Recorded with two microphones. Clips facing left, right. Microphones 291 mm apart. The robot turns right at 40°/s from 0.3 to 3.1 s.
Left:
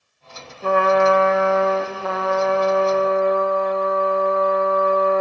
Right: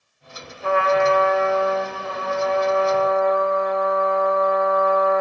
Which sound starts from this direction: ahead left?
A trumpet, at 0.6 s.